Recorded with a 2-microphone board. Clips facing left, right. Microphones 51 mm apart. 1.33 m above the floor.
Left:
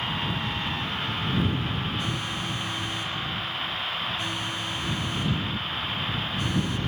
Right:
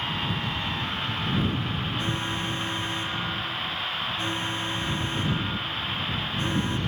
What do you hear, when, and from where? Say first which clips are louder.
2.0 s an alarm: right 1 dB; 30° right (ahead or behind)